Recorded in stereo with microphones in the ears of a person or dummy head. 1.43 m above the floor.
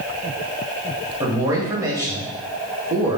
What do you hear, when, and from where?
1.2 s a man speaking: 20° right (ahead or behind), 0.9 m